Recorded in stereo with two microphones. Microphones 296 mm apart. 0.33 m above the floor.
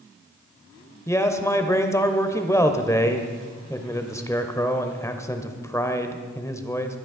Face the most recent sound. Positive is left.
turn(degrees=10)  # may be behind; listen again after turning